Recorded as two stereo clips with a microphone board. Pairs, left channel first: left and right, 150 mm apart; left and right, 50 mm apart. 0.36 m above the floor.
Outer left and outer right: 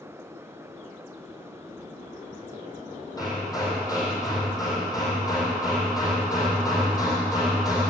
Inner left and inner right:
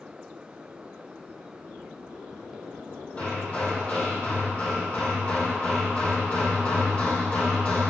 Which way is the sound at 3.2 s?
25° left (ahead or behind).